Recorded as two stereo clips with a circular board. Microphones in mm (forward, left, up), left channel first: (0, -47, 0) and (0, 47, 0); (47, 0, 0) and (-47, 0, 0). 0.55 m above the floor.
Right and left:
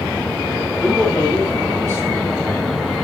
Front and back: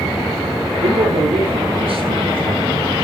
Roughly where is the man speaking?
Behind.